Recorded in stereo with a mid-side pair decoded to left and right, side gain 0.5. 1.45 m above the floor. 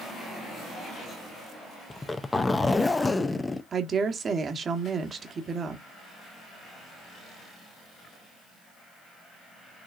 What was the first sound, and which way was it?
A zipper, 20° left.